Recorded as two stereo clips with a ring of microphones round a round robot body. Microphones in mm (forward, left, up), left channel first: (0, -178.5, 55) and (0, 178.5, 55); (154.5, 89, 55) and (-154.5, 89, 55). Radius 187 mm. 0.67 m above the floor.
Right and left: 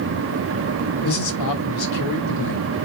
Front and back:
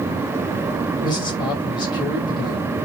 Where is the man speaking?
75° right, 1.5 m.